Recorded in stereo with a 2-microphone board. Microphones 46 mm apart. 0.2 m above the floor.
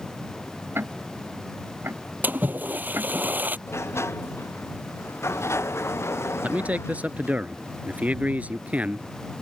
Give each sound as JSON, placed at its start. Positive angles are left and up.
{"t": 0.8, "sound": "ticking", "side_deg": -55}
{"t": 2.2, "sound": "a splash", "side_deg": -40}
{"t": 3.7, "sound": "a sliding door", "side_deg": 70}
{"t": 6.4, "sound": "a man speaking", "side_deg": -35}